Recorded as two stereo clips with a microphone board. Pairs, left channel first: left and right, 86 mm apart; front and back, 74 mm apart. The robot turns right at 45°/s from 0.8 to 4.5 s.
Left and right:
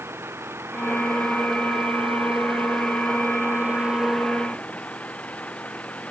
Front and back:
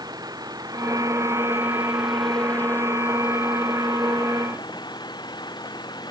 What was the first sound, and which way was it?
An engine running, 150° right.